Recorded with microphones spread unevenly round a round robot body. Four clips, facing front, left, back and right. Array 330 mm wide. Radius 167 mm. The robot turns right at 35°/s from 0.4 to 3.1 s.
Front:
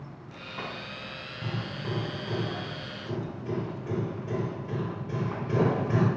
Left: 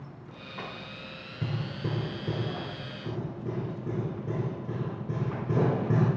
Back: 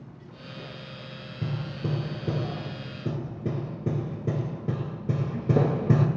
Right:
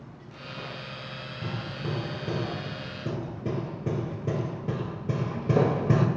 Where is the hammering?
150° left, 1.8 m; by 6.1 s 150° right, 1.8 m.